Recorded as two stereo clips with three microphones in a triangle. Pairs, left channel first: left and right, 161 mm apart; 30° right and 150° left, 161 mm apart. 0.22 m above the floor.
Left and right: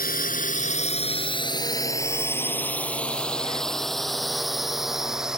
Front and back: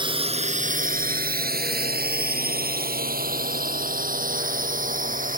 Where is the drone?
95° left; by 5.4 s 175° right.